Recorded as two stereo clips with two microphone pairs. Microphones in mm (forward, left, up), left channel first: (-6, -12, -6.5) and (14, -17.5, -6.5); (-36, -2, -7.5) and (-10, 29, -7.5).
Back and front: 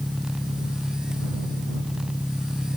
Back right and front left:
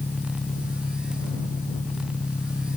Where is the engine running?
115° right.